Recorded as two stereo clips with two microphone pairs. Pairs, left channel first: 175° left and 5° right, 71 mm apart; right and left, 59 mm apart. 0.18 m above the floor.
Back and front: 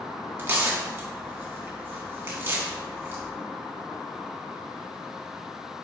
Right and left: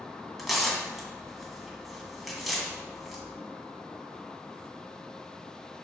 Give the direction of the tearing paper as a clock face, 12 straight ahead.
12 o'clock.